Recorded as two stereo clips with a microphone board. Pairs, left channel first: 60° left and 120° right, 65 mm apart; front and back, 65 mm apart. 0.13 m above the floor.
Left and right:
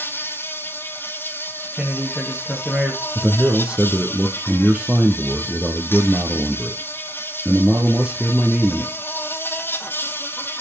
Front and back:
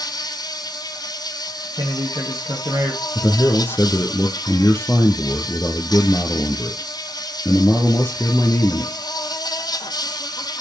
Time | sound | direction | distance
0.0 | an insect | straight ahead | 1.2 m
1.8 | a man speaking | 145° left | 6 m
3.1 | a man speaking | 45° right | 2 m